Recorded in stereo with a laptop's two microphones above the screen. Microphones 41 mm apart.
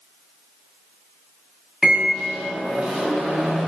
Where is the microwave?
20° right (ahead or behind), 0.6 m.